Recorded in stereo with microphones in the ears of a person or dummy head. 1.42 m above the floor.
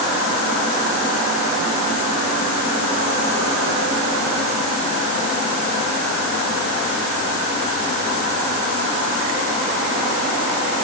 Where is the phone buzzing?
I don't hear a phone buzzing.